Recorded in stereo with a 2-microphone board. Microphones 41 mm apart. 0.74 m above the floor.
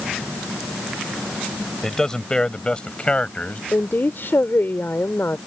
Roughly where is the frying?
No frying in this recording.